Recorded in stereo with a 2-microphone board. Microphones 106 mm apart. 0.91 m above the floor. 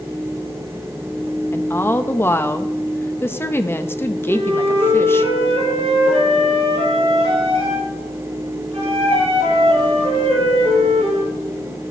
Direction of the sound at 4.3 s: 70° right (ahead or behind).